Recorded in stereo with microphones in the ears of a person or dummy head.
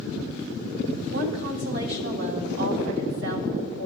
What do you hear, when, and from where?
1.1 s a woman speaking: 60° right (ahead or behind), 1.3 m